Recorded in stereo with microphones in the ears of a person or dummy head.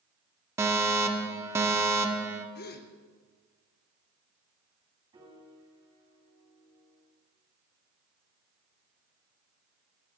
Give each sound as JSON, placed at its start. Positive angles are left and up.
{"t": 0.6, "sound": "a fire alarm", "side_deg": -15, "distance_m": 1.1}
{"t": 2.5, "sound": "a gasp", "side_deg": 50, "distance_m": 1.2}
{"t": 5.1, "sound": "a piano", "side_deg": -20, "distance_m": 7.5}